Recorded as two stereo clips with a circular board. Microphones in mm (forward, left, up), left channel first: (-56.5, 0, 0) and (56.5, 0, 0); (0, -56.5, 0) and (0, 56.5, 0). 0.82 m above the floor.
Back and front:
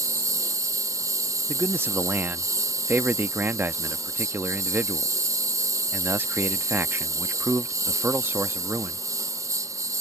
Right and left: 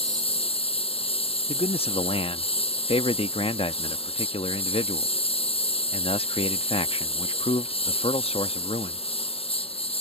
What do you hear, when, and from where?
0.0 s a lawn mower: 60° right
1.5 s a man speaking: 70° right